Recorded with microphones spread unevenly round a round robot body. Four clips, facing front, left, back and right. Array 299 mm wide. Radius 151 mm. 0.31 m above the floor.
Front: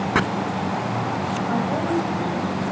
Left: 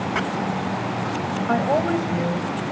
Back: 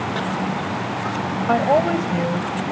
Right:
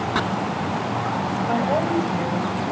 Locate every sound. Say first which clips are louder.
0.1 s chopping: right 3 dB, front 9 dB; 20° right, 0.6 m
1.5 s a woman speaking: left 2 dB, back 8 dB; 145° left, 1.6 m